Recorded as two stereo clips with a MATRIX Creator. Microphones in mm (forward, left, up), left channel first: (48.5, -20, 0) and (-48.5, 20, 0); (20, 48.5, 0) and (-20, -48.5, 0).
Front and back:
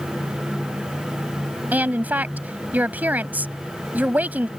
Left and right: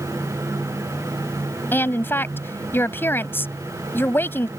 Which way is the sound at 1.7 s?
105° left.